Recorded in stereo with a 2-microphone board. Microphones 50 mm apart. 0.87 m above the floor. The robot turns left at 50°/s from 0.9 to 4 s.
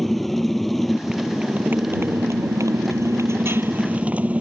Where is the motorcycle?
Straight ahead; by 4.4 s 155° right.